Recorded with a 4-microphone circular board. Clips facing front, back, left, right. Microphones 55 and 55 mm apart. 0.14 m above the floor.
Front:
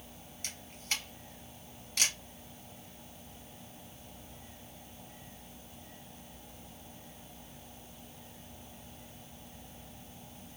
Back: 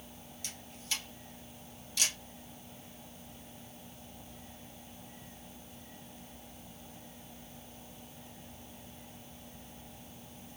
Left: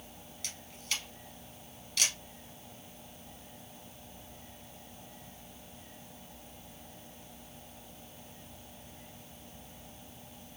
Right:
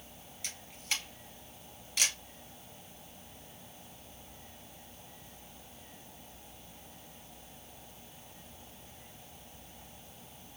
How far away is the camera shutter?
About 2 m.